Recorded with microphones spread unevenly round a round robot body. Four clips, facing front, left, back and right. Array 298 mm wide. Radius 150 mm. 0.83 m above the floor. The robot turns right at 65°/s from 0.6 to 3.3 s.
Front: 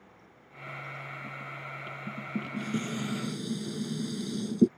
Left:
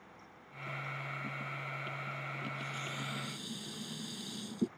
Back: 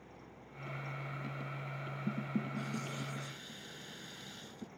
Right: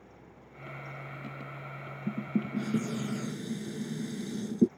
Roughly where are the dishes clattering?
Right.